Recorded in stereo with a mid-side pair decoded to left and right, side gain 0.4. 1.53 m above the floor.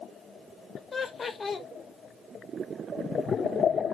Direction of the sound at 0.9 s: 40° left.